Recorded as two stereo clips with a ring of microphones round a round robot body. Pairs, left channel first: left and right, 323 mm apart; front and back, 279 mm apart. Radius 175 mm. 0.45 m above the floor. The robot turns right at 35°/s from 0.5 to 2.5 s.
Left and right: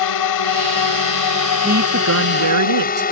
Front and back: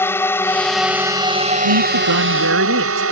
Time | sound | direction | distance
0.0 | a drone | 80° left | ?
1.6 | a woman speaking | 155° right | ?